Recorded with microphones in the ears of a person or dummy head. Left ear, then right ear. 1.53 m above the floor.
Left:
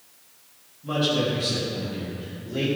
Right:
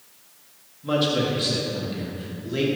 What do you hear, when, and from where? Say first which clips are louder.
0.8 s a man speaking: right 1 dB; 30° right (ahead or behind), 2.5 m; by 2.7 s 50° right (ahead or behind), 4 m